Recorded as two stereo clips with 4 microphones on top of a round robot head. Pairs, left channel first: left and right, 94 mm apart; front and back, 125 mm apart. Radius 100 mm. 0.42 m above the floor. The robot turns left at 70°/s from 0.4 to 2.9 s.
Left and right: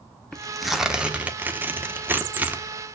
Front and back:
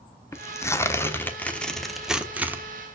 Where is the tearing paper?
15° left, 1.1 m; by 2.6 s 140° right, 1.1 m.